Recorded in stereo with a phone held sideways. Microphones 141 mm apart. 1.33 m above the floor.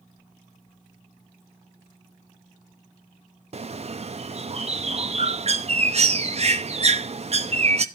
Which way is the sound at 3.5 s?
45° right (ahead or behind).